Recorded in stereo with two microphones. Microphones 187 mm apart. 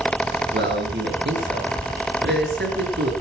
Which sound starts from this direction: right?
A man speaking, at 0.5 s.